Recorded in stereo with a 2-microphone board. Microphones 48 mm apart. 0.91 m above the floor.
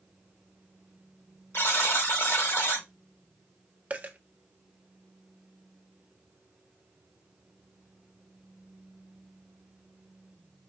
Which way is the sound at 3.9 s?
30° right (ahead or behind).